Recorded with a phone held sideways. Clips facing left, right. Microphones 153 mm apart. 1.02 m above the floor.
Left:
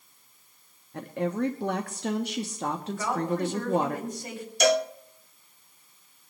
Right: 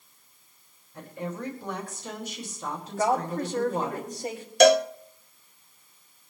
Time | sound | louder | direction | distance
0.9 | a woman speaking | left 7 dB | 70° left (ahead or behind) | 1.2 m
3.0 | a woman speaking | right 4 dB | 40° right (ahead or behind) | 5 m
4.6 | a cowbell | right 6 dB | 70° right (ahead or behind) | 1.0 m